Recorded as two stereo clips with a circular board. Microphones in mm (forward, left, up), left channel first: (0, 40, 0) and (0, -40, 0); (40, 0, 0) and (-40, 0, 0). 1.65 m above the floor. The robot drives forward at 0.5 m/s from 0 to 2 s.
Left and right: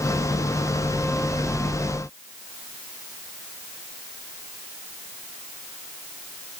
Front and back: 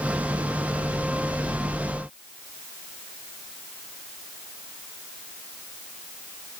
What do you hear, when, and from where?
Only background noise.